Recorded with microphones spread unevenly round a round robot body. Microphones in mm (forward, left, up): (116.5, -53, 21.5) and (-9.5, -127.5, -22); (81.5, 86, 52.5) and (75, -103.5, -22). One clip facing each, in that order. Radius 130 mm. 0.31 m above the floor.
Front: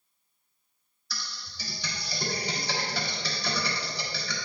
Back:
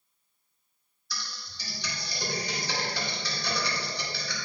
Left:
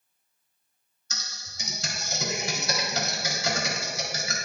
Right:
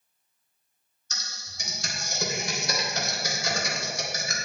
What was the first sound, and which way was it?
Typing on a keyboard, 80° left.